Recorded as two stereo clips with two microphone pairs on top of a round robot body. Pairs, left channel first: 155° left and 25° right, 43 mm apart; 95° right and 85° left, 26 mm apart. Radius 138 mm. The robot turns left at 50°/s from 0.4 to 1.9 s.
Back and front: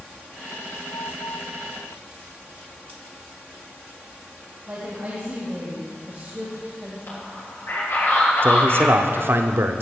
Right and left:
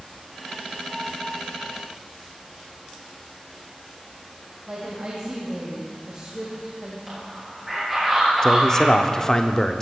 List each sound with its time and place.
4.7 s a woman speaking: 30° left, 2.5 m
7.1 s a man speaking: 170° left, 7 m
8.4 s a man speaking: 45° right, 1.0 m